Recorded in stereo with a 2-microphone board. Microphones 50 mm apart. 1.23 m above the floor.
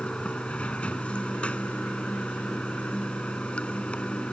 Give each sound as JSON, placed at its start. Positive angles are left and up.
{"t": 0.0, "sound": "running water", "side_deg": 25}